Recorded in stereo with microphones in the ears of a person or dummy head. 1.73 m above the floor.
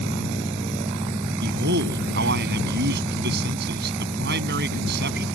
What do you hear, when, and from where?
1.4 s a man speaking: 60° right (ahead or behind)